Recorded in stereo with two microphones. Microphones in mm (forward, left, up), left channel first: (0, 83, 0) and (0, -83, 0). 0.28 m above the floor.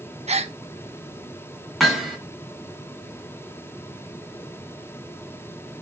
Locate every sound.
0.3 s a gasp: 40° right (ahead or behind), 0.5 m
1.8 s hammering: centre (ahead or behind), 1.9 m